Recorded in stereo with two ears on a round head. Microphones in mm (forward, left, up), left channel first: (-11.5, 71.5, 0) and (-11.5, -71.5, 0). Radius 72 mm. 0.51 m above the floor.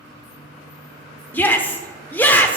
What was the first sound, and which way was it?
A shout, 10° left (ahead or behind).